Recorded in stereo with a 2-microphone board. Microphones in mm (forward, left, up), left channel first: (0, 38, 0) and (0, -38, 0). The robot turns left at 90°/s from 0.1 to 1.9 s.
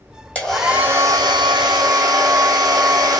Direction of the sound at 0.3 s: 15° left.